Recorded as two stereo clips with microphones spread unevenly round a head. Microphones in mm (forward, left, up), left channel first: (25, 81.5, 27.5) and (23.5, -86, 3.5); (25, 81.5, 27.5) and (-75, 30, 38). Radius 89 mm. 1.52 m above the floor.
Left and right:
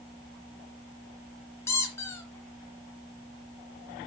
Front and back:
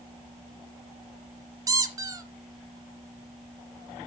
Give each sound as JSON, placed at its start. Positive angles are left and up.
{"t": 1.7, "sound": "a squeak", "azimuth_deg": 160, "distance_m": 2.5}